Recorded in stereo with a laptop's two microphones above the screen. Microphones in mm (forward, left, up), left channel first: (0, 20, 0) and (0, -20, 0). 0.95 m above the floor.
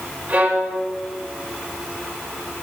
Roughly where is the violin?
Right.